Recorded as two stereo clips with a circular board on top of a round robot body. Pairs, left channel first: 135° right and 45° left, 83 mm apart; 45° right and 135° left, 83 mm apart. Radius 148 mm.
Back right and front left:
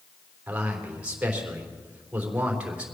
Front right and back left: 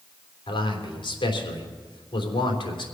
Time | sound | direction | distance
0.5 | a man speaking | 30° right | 3.5 m